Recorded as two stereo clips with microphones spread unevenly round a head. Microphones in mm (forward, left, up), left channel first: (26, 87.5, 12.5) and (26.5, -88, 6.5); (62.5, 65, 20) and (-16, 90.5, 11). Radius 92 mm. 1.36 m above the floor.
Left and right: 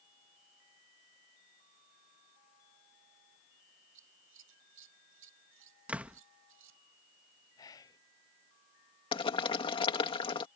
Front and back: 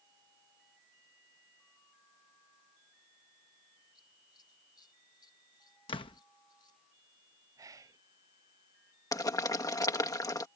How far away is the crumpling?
I don't hear crumpling.